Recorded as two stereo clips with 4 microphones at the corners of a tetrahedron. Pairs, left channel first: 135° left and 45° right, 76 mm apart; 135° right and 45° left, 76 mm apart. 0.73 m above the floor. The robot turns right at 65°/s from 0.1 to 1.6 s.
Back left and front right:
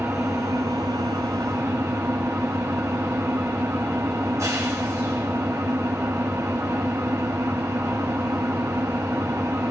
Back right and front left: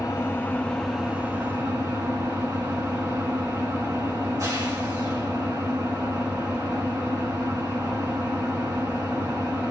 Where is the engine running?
95° right, 3 m; by 9.7 s straight ahead, 3 m.